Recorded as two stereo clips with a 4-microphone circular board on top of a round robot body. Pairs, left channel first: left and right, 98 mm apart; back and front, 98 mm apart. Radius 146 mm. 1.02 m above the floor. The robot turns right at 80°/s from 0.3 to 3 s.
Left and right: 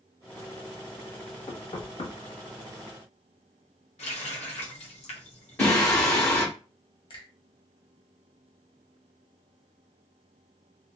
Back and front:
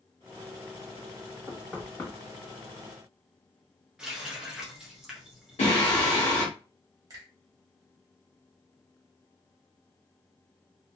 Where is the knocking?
60° left, 1.2 m; by 2.1 s 115° left, 1.2 m.